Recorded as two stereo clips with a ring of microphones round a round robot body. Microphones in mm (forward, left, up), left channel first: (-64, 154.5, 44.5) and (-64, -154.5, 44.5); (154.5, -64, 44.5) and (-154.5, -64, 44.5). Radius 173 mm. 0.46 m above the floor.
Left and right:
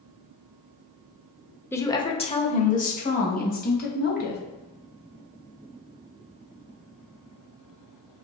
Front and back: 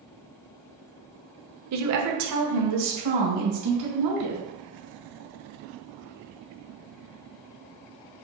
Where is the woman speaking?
170° left, 1.1 m; by 4.4 s 150° left, 3.5 m.